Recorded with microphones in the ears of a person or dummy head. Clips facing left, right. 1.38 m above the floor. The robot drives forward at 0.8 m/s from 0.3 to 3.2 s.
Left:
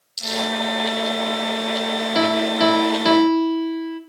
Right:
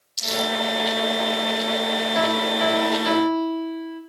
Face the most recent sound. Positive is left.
turn(degrees=70)  # may be behind; listen again after turning